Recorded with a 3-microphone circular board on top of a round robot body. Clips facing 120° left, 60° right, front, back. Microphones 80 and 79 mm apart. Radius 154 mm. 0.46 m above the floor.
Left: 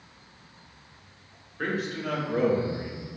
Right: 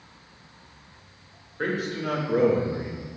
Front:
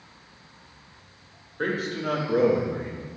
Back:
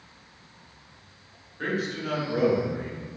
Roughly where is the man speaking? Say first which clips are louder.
Right 2 dB, front 2 dB; ahead.